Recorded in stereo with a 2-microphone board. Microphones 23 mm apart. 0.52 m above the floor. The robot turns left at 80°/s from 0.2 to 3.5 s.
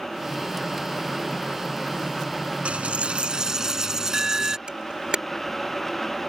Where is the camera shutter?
45° right (ahead or behind).